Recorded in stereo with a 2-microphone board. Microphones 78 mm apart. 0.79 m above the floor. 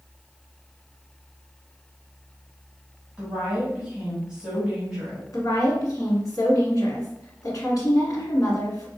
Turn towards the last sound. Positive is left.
turn(degrees=55)  # may be behind; listen again after turning